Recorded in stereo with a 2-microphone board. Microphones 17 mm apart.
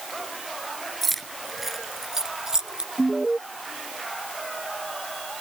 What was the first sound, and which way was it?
Keys jangling, 10° left (ahead or behind).